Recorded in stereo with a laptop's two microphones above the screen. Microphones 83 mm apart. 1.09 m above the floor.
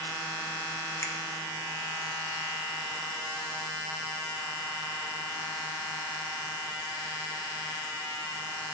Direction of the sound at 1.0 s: 30° left (ahead or behind).